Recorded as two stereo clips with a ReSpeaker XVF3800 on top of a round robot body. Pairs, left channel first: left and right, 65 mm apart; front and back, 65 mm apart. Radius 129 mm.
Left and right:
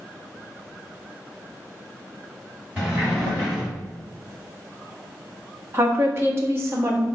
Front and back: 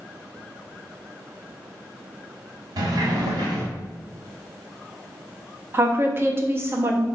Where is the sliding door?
160° right, 1.4 m.